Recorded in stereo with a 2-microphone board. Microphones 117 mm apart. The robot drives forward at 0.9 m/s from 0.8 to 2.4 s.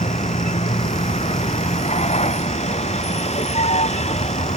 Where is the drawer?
No drawer in this recording.